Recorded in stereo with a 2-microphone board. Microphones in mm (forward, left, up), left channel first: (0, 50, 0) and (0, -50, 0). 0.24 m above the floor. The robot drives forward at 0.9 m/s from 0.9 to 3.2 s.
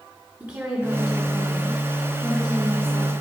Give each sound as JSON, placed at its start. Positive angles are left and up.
{"t": 0.4, "sound": "a woman speaking", "side_deg": -20, "distance_m": 1.8}